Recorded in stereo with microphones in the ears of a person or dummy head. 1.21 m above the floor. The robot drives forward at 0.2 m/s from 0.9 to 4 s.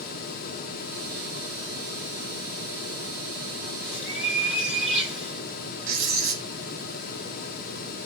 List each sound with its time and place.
3.8 s a bird: 20° right (ahead or behind), 1.8 m
5.9 s writing: 50° right (ahead or behind), 0.9 m